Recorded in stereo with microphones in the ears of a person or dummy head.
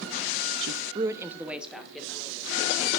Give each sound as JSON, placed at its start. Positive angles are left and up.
{"t": 0.6, "sound": "a woman speaking", "side_deg": -65, "distance_m": 0.5}